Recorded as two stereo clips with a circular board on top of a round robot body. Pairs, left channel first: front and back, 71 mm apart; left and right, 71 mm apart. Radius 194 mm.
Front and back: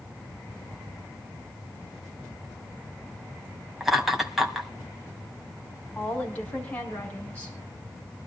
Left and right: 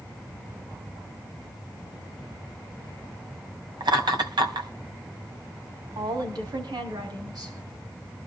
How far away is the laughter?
About 4 m.